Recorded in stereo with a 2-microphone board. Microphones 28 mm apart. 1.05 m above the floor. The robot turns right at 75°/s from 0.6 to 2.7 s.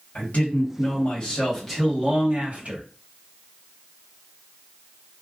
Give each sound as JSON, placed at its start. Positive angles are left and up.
{"t": 0.1, "sound": "a man speaking", "azimuth_deg": 100, "distance_m": 1.1}